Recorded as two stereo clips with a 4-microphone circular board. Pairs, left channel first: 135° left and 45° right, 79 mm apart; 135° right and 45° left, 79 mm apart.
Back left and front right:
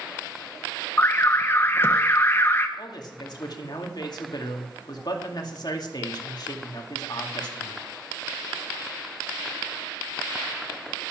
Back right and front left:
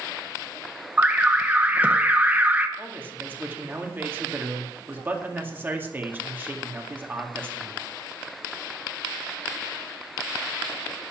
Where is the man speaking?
110° left, 2 m.